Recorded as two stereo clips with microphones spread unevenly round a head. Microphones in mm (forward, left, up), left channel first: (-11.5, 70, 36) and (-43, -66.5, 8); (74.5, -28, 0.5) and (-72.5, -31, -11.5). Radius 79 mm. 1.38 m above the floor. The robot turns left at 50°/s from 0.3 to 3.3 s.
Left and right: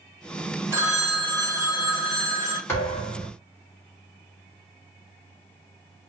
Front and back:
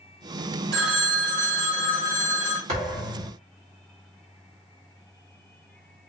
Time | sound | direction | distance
0.7 | a phone ringing | straight behind | 0.9 m
2.7 | a thud | 135° left | 1.1 m